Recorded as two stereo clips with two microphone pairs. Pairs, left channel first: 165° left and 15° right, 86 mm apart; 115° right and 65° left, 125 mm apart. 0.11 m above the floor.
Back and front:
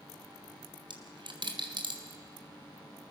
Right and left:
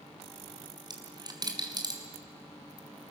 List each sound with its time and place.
0.8 s a dropped coin: 5° left, 3 m